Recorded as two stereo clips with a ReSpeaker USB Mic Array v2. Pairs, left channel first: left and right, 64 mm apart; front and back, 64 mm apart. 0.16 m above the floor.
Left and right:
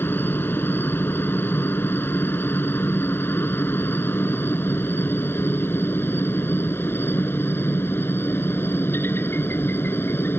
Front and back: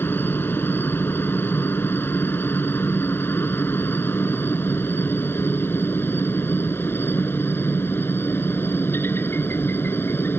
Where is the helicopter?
45° left.